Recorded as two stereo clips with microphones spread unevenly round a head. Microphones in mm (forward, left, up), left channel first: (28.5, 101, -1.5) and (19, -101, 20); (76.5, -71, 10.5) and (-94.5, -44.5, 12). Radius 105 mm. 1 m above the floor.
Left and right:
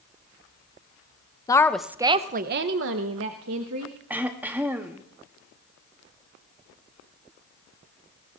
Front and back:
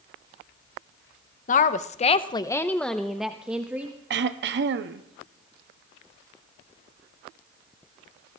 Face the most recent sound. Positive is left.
turn(degrees=-175)